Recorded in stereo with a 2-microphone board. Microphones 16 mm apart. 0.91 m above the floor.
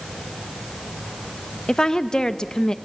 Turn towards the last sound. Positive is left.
turn(degrees=45)  # may be behind; listen again after turning